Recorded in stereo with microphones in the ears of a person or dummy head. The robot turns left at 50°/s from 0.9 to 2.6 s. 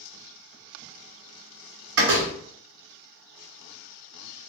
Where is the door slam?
65° right (ahead or behind), 1.7 m; by 2.3 s 50° right (ahead or behind), 1.7 m.